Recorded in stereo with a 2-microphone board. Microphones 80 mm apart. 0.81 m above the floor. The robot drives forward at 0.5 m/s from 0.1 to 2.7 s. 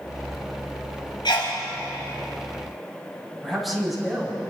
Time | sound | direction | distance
1.2 | a sneeze | 70° left (ahead or behind) | 4 m
3.4 | a man speaking | centre (ahead or behind) | 6 m